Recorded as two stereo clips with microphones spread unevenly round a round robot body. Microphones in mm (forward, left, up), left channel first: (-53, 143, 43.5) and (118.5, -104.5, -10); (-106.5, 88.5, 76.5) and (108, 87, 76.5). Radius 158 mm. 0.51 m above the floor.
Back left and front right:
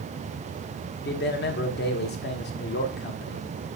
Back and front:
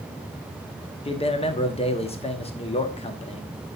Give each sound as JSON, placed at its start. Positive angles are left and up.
{"t": 1.1, "sound": "a man speaking", "azimuth_deg": 160, "distance_m": 1.1}